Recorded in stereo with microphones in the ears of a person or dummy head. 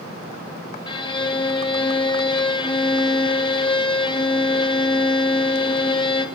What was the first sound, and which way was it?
A violin, 25° left (ahead or behind).